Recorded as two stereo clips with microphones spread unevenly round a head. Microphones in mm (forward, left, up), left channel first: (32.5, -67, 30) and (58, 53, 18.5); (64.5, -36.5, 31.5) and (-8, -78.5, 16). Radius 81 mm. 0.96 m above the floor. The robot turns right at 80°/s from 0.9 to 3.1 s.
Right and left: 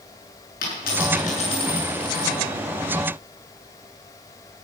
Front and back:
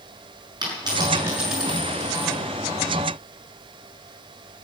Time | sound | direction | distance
0.6 | a dropped coin | 110° right | 6.5 m